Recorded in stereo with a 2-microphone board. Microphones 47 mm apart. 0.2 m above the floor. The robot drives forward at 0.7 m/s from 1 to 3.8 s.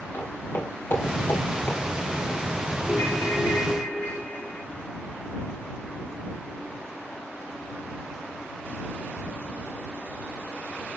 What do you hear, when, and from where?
0.1 s footsteps: 65° left (ahead or behind), 4.5 m; by 1.8 s 50° left (ahead or behind), 2.5 m
2.9 s a ringtone: 85° left, 7.5 m; by 4.6 s 80° left, 7.5 m